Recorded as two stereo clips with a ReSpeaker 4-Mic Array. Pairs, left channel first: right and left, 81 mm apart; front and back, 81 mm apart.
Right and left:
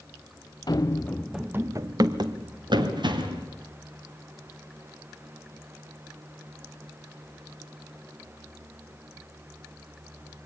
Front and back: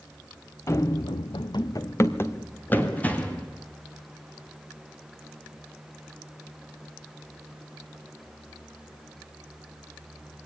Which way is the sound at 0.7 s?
55° right.